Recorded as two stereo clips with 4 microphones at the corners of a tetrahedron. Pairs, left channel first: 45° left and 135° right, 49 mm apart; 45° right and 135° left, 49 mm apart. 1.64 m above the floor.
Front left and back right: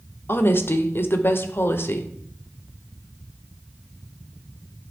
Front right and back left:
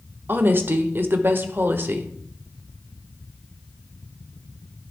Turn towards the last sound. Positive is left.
turn(degrees=90)